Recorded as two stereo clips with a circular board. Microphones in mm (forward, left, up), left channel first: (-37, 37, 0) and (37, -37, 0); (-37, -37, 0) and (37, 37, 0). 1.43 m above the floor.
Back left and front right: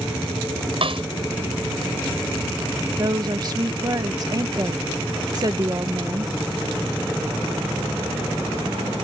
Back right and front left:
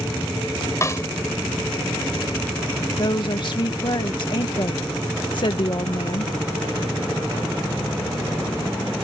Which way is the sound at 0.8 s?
75° right.